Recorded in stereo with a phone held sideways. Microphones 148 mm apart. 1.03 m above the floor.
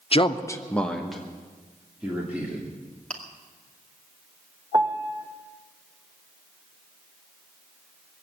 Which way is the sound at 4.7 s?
25° right (ahead or behind).